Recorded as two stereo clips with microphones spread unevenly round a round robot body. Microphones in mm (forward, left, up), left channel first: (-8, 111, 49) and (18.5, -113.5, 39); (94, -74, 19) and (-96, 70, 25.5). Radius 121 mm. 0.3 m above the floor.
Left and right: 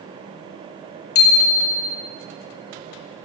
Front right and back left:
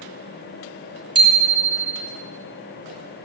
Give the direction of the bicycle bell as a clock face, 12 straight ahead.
10 o'clock.